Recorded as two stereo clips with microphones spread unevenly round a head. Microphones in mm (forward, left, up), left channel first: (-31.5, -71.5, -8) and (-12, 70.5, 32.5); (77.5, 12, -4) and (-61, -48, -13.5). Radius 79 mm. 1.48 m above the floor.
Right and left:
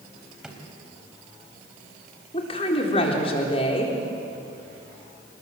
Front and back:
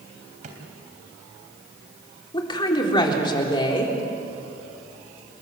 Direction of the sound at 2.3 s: 35° right.